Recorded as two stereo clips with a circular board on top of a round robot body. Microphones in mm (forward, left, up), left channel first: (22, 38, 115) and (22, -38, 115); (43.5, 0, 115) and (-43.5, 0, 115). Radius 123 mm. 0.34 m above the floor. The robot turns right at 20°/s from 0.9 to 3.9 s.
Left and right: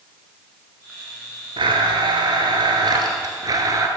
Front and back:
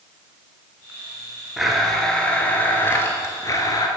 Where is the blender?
90° right, 1.3 m; by 3.9 s 45° right, 1.3 m.